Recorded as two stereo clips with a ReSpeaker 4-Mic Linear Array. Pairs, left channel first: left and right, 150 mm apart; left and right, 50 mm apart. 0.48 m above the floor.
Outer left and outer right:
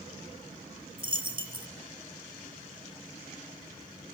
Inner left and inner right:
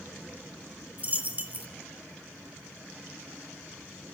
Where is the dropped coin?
35° right (ahead or behind), 1.7 m.